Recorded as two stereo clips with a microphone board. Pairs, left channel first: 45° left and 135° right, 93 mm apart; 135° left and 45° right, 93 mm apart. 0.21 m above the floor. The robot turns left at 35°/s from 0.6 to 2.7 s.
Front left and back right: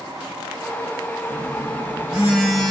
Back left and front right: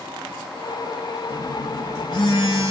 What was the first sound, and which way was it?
A phone buzzing, 175° left.